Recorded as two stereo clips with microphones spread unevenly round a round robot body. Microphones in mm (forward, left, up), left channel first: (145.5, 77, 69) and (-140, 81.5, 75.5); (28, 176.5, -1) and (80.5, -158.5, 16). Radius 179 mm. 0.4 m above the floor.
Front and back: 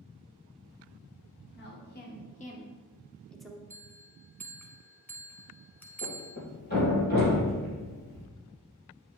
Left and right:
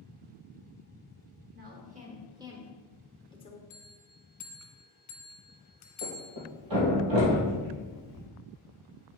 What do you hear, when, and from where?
1.5 s a woman speaking: 30° right, 1.4 m; by 3.6 s 95° left, 1.0 m
3.7 s a bell: 80° left, 1.4 m
6.0 s a thud: 65° right, 3.5 m